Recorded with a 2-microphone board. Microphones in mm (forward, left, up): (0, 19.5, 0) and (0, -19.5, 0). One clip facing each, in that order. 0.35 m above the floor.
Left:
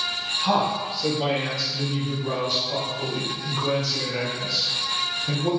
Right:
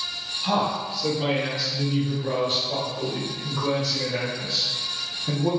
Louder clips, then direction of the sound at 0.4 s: Left 1 dB; 25° left (ahead or behind).